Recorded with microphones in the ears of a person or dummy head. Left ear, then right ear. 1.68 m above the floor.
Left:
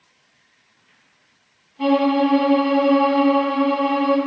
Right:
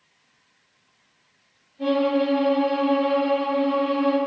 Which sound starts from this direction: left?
A violin, at 1.8 s.